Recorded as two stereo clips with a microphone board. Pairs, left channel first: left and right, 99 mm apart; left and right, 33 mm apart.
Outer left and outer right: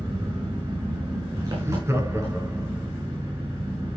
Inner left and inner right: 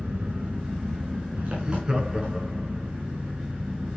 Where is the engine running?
35° right (ahead or behind), 6.5 m.